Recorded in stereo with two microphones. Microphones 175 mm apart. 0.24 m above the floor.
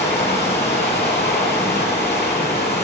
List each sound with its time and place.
0.0 s running water: 75° left (ahead or behind), 3.5 m